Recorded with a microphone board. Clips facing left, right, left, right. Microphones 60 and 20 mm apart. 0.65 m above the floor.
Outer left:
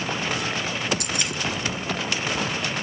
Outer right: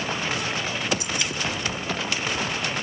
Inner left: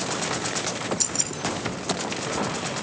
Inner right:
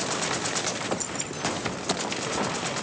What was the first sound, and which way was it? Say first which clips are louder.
Keys jangling: even, inner left 5 dB; 65° left (ahead or behind).